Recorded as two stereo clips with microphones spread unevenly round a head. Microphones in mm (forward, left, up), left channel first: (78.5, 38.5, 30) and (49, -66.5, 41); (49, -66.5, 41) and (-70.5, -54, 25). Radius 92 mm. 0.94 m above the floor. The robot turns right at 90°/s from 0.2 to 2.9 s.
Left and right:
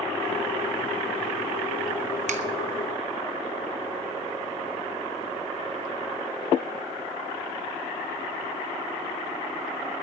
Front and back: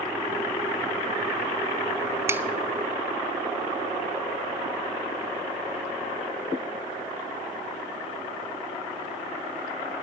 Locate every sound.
2.3 s a finger snap: 125° right, 1.1 m; by 2.4 s 110° right, 1.1 m